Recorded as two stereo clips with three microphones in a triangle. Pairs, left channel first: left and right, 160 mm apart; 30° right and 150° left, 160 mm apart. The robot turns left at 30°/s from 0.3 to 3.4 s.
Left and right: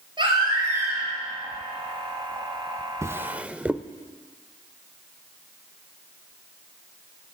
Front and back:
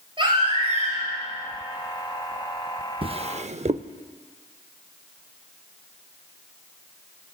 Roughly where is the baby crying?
Behind right.